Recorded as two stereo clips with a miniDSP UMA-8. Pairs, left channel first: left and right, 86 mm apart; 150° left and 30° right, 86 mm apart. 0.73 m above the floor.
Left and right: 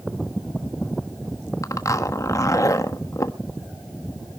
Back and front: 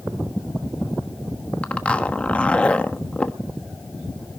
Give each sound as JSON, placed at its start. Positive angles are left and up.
{"t": 1.6, "sound": "a zipper", "azimuth_deg": 85, "distance_m": 1.1}